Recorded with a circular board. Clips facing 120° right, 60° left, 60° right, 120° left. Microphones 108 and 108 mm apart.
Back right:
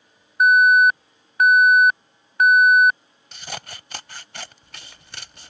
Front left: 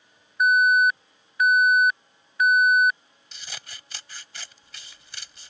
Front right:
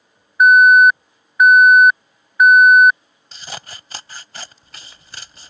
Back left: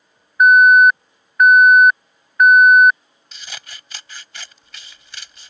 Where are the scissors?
105° right.